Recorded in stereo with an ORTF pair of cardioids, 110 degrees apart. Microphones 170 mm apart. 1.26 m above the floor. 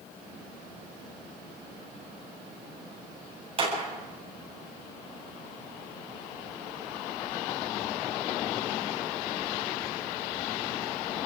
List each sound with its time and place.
3.6 s a clap: 35° right, 8.5 m